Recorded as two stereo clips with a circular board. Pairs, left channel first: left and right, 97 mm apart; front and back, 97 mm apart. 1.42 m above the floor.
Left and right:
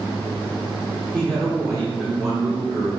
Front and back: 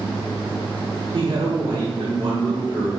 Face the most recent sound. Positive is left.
turn(degrees=-145)